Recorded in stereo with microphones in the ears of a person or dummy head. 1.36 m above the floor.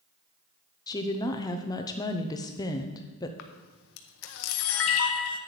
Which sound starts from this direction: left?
A camera shutter, at 3.4 s.